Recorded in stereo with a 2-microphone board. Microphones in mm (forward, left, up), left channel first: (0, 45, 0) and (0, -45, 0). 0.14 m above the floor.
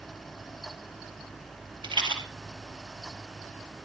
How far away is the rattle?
About 2.5 m.